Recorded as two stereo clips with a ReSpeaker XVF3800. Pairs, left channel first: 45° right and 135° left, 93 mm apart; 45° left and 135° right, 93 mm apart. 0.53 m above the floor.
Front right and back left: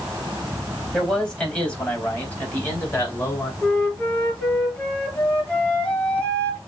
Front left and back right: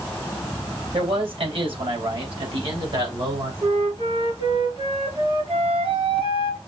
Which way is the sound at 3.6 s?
120° right.